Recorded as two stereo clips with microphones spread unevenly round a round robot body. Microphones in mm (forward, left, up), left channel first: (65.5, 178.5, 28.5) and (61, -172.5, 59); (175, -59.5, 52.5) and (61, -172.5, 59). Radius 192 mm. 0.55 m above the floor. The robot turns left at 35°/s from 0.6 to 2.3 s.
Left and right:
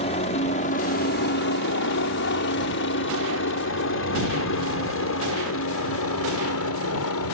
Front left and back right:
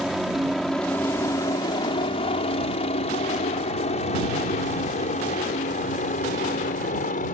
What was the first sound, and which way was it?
A helicopter, 135° left.